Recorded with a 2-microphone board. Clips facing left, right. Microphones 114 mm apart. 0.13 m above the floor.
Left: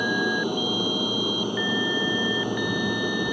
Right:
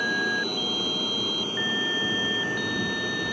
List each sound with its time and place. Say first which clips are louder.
0.0 s an aircraft: left 4 dB; 15° left (ahead or behind)